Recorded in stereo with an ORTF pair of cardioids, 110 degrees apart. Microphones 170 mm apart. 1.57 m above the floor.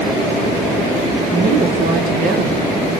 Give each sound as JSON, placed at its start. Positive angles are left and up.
{"t": 1.3, "sound": "a woman speaking", "azimuth_deg": -55, "distance_m": 1.7}